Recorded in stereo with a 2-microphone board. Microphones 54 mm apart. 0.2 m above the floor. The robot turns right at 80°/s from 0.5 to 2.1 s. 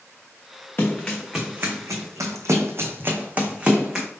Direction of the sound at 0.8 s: 40° left (ahead or behind).